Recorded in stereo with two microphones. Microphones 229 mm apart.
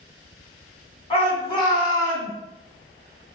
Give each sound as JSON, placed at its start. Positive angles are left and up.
{"t": 1.1, "sound": "a shout", "side_deg": 25, "distance_m": 1.2}